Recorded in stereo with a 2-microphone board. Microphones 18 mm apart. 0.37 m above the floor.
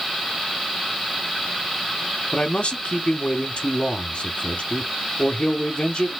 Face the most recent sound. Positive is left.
turn(degrees=70)  # may be behind; listen again after turning